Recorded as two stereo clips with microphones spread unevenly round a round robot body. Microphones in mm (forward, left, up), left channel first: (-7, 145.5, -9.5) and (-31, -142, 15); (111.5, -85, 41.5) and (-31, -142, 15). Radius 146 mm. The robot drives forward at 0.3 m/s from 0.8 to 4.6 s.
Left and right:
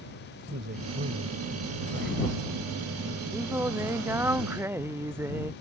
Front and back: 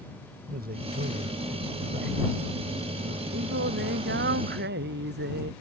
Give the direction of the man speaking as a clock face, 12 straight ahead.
5 o'clock.